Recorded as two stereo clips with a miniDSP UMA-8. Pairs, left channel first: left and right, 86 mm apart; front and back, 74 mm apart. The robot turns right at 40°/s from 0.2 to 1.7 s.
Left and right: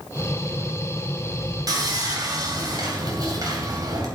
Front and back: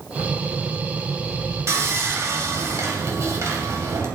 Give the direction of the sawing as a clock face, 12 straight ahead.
4 o'clock.